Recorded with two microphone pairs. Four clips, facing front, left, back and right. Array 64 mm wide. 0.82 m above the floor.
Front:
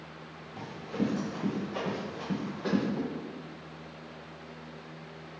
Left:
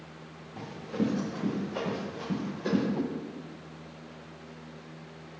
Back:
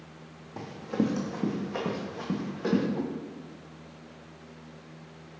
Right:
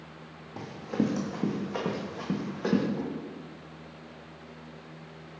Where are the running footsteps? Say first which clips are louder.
Right 2 dB, back 3 dB; 145° right, 1.9 m; by 2.8 s 110° right, 2.5 m.